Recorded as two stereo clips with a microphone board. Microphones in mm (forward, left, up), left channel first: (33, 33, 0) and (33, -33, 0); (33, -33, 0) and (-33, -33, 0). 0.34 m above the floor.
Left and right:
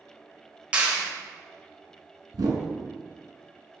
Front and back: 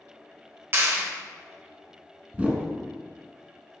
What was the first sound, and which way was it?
A clap, 150° right.